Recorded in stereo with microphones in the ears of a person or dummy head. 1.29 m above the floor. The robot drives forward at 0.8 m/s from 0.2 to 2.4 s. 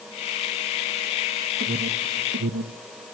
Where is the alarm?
40° right (ahead or behind), 1.7 m; by 2.8 s 60° right (ahead or behind), 1.3 m.